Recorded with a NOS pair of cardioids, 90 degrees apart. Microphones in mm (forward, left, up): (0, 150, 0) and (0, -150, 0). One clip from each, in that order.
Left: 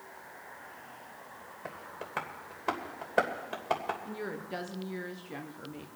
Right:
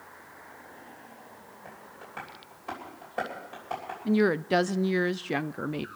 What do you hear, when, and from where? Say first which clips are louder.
1.6 s tapping: left 5 dB; 60° left, 3 m
4.0 s a woman speaking: right 13 dB; 65° right, 0.5 m